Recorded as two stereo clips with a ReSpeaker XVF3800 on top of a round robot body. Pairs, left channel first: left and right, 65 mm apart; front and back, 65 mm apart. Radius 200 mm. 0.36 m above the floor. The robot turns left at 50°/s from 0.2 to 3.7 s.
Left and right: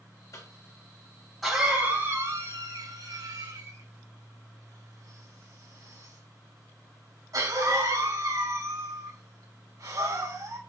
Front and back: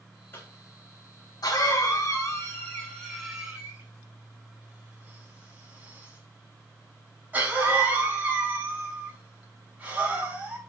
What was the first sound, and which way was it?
A cough, 55° left.